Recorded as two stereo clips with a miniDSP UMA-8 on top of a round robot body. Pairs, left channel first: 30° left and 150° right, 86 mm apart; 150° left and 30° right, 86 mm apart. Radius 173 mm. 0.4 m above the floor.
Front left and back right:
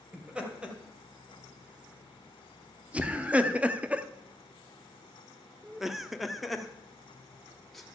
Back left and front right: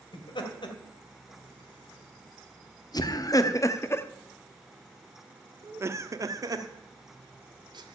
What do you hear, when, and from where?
0.1 s laughter: 135° left, 3 m; by 7.9 s 55° right, 2 m